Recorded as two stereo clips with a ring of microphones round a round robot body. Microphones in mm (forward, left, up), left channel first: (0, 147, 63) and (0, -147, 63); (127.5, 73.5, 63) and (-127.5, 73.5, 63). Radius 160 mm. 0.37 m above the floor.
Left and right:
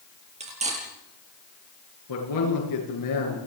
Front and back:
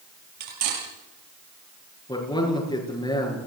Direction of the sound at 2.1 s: 75° left.